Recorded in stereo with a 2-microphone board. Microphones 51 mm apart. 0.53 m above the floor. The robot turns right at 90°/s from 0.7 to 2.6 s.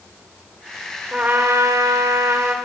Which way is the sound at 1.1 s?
155° right.